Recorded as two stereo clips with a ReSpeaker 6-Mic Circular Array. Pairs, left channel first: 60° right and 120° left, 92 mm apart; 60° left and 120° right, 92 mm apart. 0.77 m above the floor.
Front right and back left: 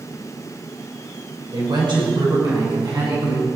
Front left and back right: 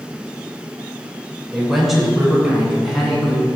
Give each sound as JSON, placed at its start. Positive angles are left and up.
{"t": 1.5, "sound": "a woman speaking", "azimuth_deg": 150, "distance_m": 3.5}